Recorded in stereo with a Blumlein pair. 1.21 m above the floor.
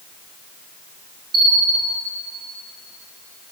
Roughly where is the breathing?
No breathing in this recording.